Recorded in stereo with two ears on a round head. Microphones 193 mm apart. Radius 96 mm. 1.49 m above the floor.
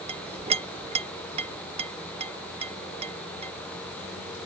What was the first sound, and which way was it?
A clink, 30° right (ahead or behind).